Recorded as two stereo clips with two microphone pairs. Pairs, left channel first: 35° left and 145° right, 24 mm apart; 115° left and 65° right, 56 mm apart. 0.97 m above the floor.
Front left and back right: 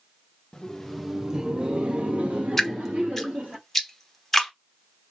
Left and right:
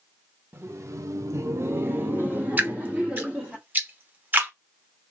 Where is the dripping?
35° right, 0.9 m.